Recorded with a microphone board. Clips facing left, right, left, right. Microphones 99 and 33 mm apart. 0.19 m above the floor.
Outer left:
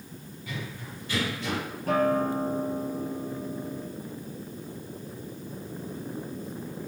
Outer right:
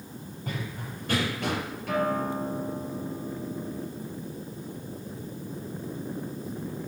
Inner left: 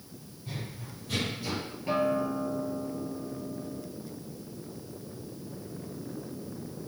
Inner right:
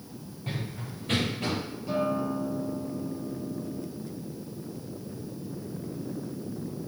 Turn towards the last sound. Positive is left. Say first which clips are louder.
# outer left 3 dB, inner left 1 dB
turn(degrees=40)  # may be behind; listen again after turning